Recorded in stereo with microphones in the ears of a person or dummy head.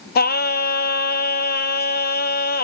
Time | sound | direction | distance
0.1 | singing | 50° left (ahead or behind) | 0.7 m